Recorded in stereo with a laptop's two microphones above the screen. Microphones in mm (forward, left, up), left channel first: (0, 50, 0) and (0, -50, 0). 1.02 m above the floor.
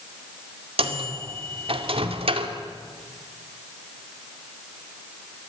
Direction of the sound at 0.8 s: 70° right (ahead or behind).